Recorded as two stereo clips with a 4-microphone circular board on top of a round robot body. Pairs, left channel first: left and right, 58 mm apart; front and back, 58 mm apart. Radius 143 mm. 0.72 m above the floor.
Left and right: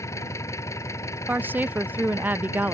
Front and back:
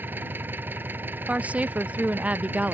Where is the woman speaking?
125° right.